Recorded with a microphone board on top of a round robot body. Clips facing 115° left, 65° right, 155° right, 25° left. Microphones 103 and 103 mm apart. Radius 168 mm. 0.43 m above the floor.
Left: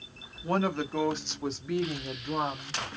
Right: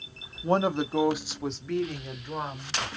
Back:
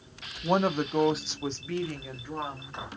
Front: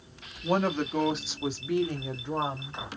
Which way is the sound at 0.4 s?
105° right.